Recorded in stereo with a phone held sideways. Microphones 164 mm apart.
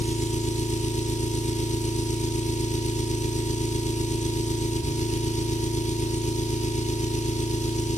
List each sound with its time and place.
0.0 s an engine running: 45° left (ahead or behind), 1.3 m